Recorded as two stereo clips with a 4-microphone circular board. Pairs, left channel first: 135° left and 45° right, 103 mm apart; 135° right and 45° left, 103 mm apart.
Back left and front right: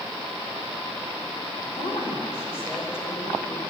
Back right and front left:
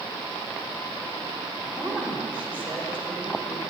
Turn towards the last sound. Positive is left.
turn(degrees=110)